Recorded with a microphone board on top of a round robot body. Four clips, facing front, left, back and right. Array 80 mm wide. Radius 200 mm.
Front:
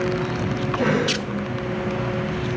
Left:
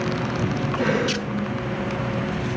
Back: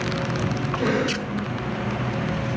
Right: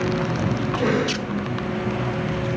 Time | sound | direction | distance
0.8 | a cough | 35° left | 9 m